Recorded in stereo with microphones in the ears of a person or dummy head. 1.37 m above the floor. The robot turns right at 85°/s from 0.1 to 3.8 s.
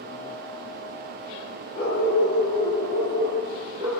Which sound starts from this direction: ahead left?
A dog barking, at 1.8 s.